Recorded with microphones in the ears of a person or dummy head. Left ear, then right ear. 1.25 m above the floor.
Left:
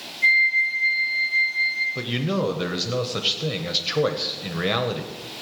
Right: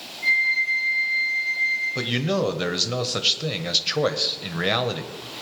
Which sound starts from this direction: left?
A flute, at 0.2 s.